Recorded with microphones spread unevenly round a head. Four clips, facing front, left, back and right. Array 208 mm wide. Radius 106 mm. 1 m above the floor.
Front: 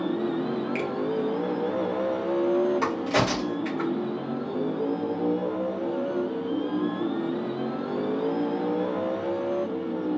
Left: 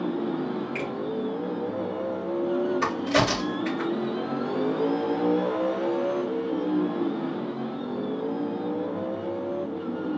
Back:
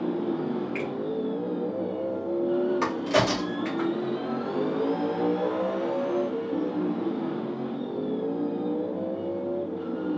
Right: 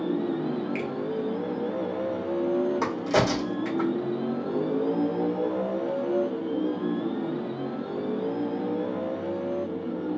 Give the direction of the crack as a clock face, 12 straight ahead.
3 o'clock.